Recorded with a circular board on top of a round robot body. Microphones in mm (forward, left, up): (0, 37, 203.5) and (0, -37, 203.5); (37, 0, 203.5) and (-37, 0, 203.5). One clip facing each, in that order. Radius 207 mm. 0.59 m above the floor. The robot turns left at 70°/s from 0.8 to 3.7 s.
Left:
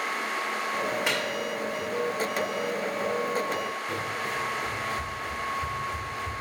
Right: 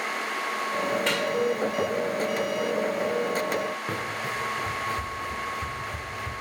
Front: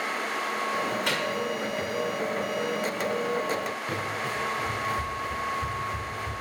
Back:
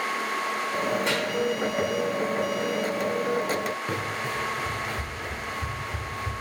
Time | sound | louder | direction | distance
1.1 | a microwave | right 2 dB, back 2 dB | 10° left | 3 m
3.9 | running footsteps | even, back 1 dB | 125° right | 4 m